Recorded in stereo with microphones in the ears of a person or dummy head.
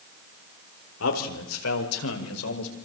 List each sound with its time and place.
1.0 s a man speaking: 70° left (ahead or behind), 4.5 m; by 2.8 s 85° left, 5.5 m